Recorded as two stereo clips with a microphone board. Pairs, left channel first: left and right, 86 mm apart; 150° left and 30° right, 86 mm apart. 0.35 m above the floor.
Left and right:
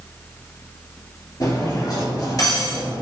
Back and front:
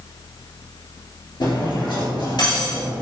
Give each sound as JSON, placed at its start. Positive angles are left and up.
{"t": 1.4, "sound": "cutlery clinking", "azimuth_deg": 125, "distance_m": 3.5}